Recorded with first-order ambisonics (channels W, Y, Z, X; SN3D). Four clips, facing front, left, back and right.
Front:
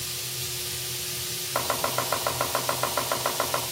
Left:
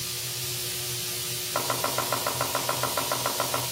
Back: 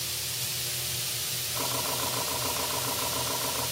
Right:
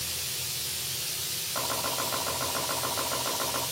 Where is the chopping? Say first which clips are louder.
Left 4 dB, front 6 dB; 30° left, 4 m.